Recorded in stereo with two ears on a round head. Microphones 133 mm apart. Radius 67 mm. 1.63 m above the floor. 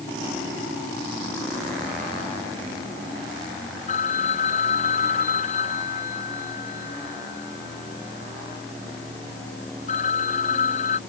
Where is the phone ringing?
50° left (ahead or behind).